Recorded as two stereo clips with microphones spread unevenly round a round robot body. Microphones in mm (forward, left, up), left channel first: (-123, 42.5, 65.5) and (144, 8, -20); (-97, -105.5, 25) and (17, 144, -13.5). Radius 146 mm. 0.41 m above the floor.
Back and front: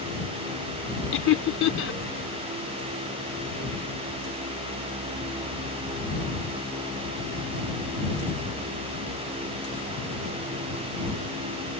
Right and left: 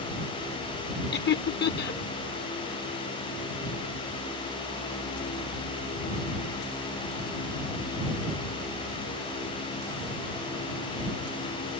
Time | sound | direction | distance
1.1 | laughter | 145° right | ?